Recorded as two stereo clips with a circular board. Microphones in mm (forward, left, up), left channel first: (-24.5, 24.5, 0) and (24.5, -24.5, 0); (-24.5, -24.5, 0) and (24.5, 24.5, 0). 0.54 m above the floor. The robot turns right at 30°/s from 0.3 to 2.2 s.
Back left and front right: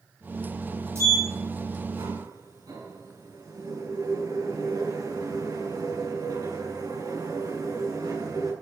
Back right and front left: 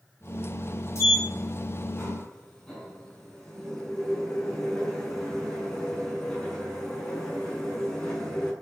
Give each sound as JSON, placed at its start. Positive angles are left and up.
{"t": 0.9, "sound": "a sliding door", "azimuth_deg": -90, "distance_m": 7.0}